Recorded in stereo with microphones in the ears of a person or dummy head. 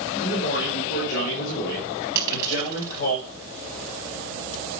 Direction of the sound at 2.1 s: 15° right (ahead or behind).